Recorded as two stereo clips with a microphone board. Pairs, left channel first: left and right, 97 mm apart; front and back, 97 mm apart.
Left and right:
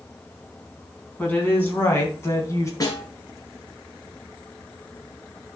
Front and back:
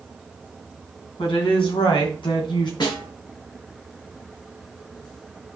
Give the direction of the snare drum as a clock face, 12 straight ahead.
11 o'clock.